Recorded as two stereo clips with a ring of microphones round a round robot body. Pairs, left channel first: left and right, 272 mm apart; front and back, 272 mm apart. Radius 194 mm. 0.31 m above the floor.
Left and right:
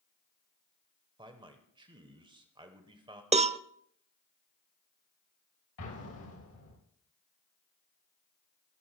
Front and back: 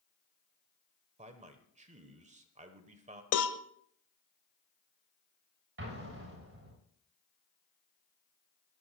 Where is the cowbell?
25° right, 0.6 m.